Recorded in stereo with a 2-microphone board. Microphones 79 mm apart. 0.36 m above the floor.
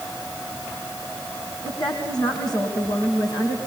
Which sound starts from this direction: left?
A woman speaking, at 1.6 s.